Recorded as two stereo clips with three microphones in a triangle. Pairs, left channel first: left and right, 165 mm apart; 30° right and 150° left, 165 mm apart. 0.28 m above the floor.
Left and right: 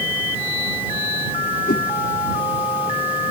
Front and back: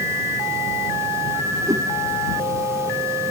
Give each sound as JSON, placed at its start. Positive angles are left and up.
{"t": 1.7, "sound": "a whoosh", "azimuth_deg": 85}